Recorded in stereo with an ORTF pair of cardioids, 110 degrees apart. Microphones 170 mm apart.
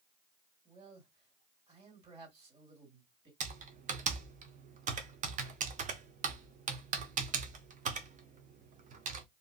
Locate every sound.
0.7 s a man speaking: 35° right, 2.5 m
3.4 s typing on a keyboard: 45° right, 0.8 m